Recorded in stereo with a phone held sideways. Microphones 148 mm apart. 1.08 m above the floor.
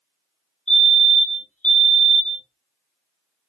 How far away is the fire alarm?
About 2.5 m.